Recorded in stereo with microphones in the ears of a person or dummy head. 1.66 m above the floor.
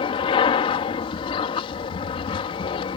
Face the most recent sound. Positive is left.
turn(degrees=30)  # may be behind; listen again after turning